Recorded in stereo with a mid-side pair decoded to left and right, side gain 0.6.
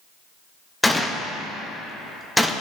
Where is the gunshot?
10° left, 1.2 m.